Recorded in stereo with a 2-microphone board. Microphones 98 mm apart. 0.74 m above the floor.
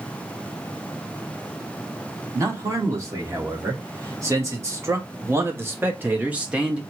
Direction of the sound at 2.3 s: 35° right (ahead or behind).